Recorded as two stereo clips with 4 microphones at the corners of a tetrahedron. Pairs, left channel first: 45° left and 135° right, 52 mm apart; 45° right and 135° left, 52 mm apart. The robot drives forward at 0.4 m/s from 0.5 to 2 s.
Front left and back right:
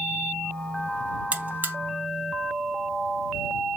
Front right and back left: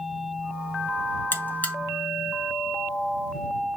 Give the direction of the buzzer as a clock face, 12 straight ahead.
3 o'clock.